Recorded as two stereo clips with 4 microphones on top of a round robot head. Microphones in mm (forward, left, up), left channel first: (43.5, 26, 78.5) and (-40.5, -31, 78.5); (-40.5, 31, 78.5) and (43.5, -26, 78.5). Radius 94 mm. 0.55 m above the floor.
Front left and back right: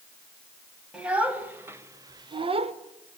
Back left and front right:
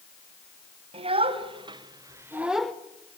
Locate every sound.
0.9 s a child speaking: 65° right, 2.5 m; by 2.7 s 135° right, 1.1 m